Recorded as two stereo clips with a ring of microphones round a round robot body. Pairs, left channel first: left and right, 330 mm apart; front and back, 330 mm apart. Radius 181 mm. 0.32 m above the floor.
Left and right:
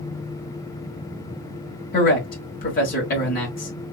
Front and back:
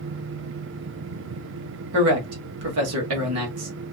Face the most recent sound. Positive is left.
turn(degrees=150)